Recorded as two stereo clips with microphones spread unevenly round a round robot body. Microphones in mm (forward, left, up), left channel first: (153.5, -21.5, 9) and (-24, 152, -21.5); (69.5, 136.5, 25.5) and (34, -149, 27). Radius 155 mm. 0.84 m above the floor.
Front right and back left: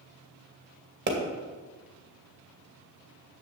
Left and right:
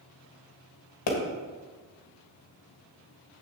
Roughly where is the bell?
I don't hear a bell.